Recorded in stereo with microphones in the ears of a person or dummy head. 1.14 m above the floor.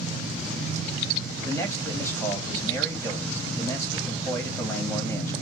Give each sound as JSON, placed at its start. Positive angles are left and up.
{"t": 1.4, "sound": "a man speaking", "side_deg": 5, "distance_m": 1.6}